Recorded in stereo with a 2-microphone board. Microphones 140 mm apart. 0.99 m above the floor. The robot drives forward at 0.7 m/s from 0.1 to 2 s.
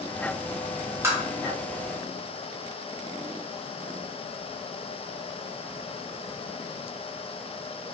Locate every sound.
1.0 s tapping: 20° right (ahead or behind), 0.9 m; by 1.2 s 15° right (ahead or behind), 1.0 m